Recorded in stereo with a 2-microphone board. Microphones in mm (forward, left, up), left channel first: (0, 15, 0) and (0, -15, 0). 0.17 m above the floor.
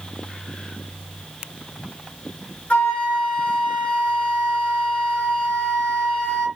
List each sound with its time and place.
2.7 s a flute: 40° left (ahead or behind), 2.5 m